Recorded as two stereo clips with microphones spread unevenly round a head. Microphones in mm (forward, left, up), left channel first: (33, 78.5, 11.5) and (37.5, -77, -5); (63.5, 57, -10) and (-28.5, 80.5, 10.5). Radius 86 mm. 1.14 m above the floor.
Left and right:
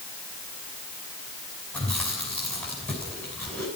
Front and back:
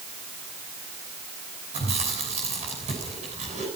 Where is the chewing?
175° left, 7 m.